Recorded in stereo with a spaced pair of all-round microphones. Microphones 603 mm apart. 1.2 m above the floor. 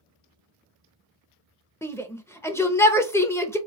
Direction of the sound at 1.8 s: 5° left (ahead or behind).